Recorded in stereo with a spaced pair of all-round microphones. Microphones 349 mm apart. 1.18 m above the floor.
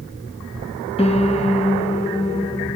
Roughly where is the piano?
Centre.